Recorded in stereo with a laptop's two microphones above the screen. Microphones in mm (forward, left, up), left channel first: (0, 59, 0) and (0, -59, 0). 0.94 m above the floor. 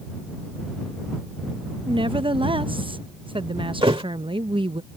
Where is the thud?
50° right (ahead or behind).